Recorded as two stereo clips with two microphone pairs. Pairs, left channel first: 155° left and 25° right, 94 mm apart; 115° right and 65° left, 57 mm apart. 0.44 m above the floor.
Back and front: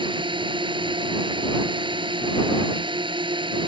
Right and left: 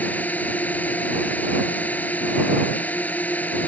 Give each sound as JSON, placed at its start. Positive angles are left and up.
{"t": 0.0, "sound": "a drone", "azimuth_deg": -55}